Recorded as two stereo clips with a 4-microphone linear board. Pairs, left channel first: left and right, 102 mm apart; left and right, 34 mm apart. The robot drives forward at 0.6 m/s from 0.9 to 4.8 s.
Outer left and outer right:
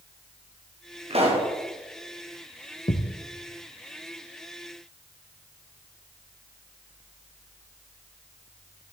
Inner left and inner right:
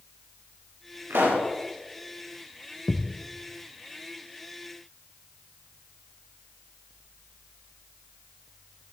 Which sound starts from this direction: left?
A thud, at 2.9 s.